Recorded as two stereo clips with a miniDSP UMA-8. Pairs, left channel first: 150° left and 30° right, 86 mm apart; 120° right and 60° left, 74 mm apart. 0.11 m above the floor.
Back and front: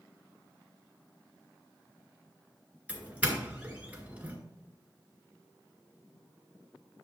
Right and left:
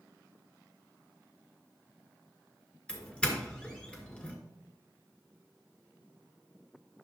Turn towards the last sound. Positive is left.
turn(degrees=-70)